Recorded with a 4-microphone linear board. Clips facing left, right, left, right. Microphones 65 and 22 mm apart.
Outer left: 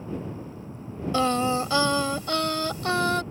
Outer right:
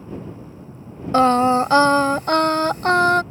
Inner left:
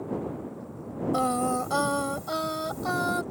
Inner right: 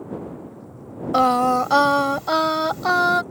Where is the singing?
45° right (ahead or behind).